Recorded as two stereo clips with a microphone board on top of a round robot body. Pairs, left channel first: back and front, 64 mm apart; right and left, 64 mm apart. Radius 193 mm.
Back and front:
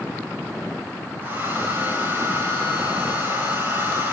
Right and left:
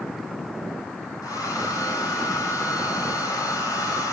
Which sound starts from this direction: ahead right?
A hair dryer, at 1.2 s.